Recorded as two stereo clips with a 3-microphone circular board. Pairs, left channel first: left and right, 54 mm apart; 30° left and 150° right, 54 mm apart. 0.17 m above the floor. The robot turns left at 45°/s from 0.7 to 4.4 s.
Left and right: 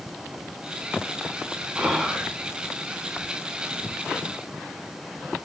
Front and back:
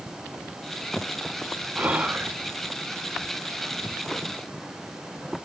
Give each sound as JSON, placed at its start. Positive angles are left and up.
{"t": 1.8, "sound": "whispering", "azimuth_deg": -155, "distance_m": 1.3}